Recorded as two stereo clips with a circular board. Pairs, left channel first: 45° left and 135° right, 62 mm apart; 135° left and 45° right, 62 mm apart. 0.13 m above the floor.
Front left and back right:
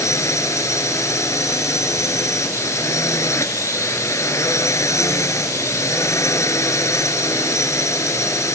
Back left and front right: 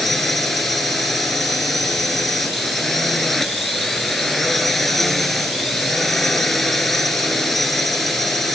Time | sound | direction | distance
0.0 | a drone | 50° left | ?